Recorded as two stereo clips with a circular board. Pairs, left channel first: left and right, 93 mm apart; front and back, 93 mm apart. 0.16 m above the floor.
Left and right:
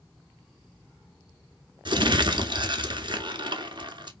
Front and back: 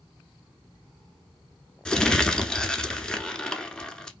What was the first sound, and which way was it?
Crumpling, 80° right.